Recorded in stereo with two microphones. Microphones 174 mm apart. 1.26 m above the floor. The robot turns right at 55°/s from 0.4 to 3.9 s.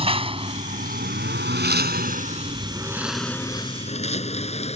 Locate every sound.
0.0 s a lawn mower: 35° right (ahead or behind); by 4.8 s 40° left (ahead or behind)